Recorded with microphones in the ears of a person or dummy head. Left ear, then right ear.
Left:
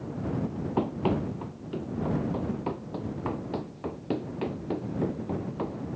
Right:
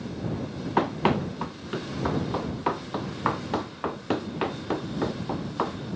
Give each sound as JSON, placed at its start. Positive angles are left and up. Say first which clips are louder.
{"t": 0.8, "sound": "running footsteps", "louder": "right 5 dB", "side_deg": -60}